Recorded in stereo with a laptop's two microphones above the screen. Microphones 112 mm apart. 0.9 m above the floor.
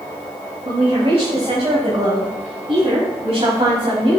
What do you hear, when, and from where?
0.7 s a woman speaking: 55° right (ahead or behind), 4.5 m; by 4.2 s 60° right (ahead or behind), 6.5 m